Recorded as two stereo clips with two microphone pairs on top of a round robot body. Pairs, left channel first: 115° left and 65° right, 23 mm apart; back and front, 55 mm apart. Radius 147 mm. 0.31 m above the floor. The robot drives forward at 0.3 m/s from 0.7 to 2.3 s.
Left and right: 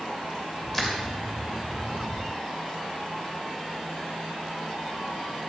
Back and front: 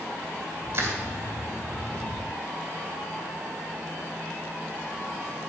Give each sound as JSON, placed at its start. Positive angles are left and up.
{"t": 0.7, "sound": "crushing", "azimuth_deg": 45, "distance_m": 2.5}